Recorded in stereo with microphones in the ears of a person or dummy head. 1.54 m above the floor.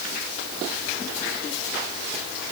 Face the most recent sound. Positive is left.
No sound to turn to.